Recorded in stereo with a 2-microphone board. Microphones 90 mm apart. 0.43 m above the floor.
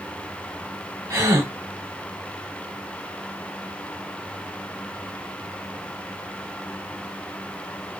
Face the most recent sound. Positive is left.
turn(degrees=-30)  # may be behind; listen again after turning